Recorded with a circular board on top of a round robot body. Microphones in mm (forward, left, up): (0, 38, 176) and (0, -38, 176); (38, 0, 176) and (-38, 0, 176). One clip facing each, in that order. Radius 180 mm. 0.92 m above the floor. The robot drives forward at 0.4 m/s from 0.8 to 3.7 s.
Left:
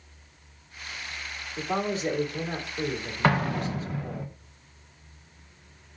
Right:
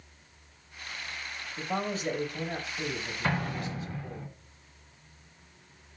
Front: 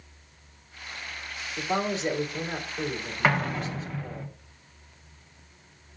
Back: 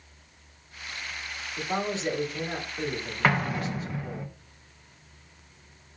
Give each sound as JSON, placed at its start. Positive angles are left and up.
{"t": 1.6, "sound": "a man speaking", "azimuth_deg": 75, "distance_m": 2.5}
{"t": 3.2, "sound": "an explosion", "azimuth_deg": 90, "distance_m": 0.9}